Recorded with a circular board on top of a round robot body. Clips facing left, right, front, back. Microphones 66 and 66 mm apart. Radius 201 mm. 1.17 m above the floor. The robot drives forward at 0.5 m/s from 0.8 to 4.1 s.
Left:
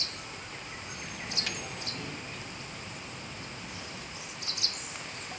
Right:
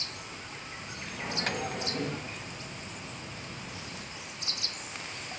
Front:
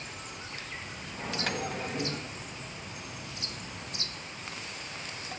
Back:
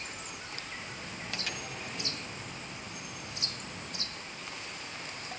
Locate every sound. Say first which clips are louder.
1.2 s a microwave: right 7 dB, front 8 dB; 40° right, 1.5 m; by 2.3 s 55° right, 1.1 m